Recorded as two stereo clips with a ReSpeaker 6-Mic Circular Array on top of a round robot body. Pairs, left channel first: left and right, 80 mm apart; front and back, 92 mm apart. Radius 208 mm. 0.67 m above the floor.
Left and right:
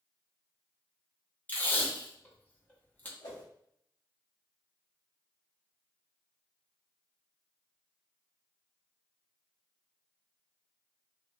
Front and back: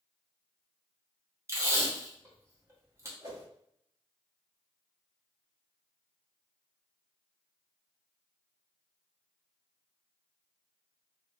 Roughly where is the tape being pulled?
Behind left.